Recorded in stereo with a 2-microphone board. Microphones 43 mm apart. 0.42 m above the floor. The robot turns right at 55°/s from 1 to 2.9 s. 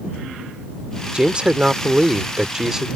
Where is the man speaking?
20° right (ahead or behind); by 2.9 s 10° right (ahead or behind).